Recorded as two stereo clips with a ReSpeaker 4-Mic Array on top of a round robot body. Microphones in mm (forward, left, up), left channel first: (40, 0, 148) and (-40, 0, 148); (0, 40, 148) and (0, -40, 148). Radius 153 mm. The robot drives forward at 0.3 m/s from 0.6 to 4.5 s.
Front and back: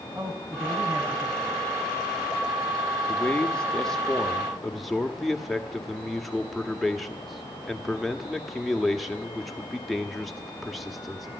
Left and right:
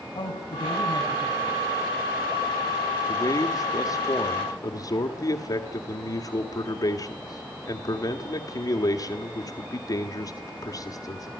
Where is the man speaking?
70° left, 1.7 m; by 11.3 s 90° left, 1.7 m.